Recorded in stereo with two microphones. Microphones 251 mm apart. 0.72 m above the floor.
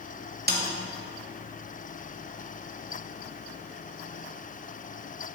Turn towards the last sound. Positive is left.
turn(degrees=-40)  # may be behind; listen again after turning